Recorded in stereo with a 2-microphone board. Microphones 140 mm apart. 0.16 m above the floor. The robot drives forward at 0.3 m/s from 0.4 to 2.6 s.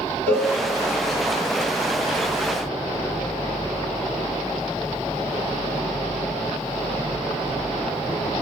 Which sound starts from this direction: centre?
A cowbell, at 0.3 s.